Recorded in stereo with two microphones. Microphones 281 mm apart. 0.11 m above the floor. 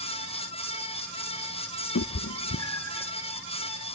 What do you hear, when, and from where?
1.9 s a cat meowing: 75° left (ahead or behind), 0.5 m; by 3.1 s 85° left, 1.3 m